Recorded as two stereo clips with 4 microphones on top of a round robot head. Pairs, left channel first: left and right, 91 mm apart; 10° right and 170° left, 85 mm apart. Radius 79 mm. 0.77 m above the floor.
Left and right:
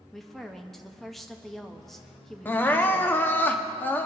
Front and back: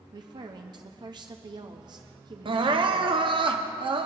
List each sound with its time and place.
0.1 s a woman speaking: 175° left, 0.7 m
2.5 s crying: 160° left, 0.9 m